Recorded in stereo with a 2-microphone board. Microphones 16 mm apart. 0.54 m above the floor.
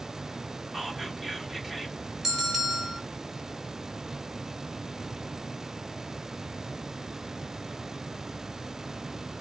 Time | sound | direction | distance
0.7 | whispering | 15° right (ahead or behind) | 1.3 m
2.2 | a bell | 20° right (ahead or behind) | 1.9 m